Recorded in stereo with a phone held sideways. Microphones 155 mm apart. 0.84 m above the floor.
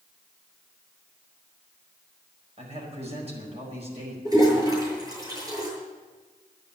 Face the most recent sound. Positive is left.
turn(degrees=-25)  # may be behind; listen again after turning